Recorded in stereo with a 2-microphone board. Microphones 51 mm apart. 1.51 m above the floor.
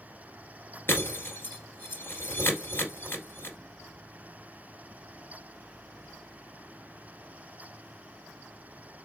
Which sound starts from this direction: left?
Breaking glass, at 0.9 s.